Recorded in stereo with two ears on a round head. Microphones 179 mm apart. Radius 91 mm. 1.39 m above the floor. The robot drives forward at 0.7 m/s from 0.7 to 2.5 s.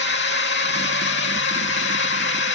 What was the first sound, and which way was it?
A drone, 55° left (ahead or behind).